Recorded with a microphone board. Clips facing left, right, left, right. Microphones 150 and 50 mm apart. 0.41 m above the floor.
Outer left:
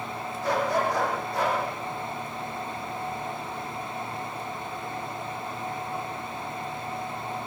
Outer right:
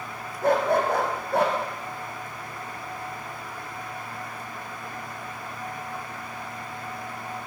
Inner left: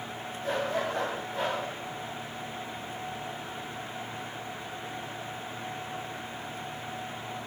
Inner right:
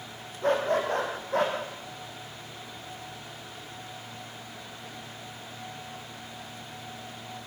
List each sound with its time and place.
0.4 s a dog barking: 55° right (ahead or behind), 5 m; by 1.6 s 65° right (ahead or behind), 5 m